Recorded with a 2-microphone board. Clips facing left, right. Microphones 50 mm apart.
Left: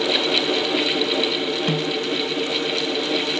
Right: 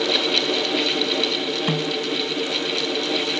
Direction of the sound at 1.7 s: 25° right (ahead or behind).